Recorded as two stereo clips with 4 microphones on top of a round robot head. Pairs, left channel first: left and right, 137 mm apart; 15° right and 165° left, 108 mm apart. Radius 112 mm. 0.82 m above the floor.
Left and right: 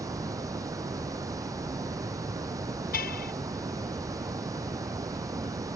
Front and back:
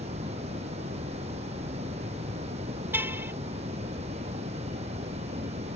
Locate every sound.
0.0 s running water: 155° right
2.9 s a car horn: 95° left